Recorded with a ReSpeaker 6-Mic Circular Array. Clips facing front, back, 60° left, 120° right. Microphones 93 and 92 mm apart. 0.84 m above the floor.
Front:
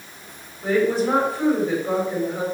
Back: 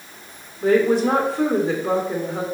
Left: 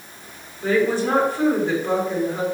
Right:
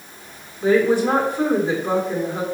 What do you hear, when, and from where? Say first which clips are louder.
0.6 s a woman speaking: back 3 dB, right 3 dB; 165° left, 2 m